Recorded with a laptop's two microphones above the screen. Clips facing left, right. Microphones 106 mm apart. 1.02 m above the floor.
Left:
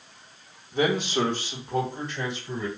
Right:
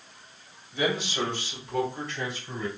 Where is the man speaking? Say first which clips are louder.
Left 4 dB; 50° left (ahead or behind), 1.0 m; by 2.7 s 25° left (ahead or behind), 2 m.